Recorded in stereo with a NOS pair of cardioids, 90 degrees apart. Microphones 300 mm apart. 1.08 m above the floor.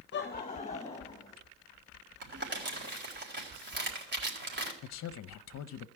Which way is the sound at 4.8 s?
55° left.